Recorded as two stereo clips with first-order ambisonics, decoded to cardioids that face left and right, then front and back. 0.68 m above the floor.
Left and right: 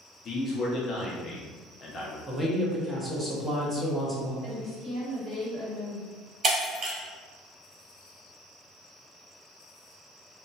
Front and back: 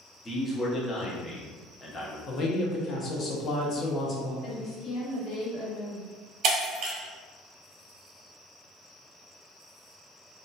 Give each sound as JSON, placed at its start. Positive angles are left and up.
{"t": 0.2, "sound": "a man speaking", "azimuth_deg": 65, "distance_m": 0.5}
{"t": 2.3, "sound": "a man speaking", "azimuth_deg": -15, "distance_m": 0.6}
{"t": 4.4, "sound": "a woman speaking", "azimuth_deg": -30, "distance_m": 1.3}
{"t": 6.4, "sound": "breaking glass", "azimuth_deg": -145, "distance_m": 1.1}